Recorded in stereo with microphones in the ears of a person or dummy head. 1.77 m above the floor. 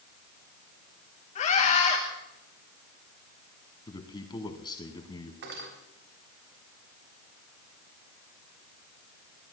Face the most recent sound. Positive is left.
turn(degrees=-70)  # may be behind; listen again after turning